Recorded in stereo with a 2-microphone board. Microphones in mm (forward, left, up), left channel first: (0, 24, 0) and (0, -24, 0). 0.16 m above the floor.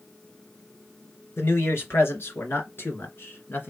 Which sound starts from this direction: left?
A man speaking, at 1.4 s.